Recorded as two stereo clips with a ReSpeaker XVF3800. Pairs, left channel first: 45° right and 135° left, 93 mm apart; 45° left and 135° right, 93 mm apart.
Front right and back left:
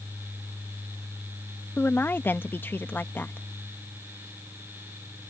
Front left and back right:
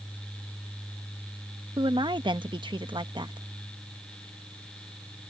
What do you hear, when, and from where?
1.8 s a woman speaking: 110° right